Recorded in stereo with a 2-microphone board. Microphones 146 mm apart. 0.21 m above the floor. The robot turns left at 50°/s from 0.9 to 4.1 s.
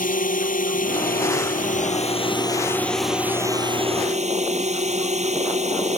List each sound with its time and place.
0.0 s a drone: 105° left; by 6.0 s 55° right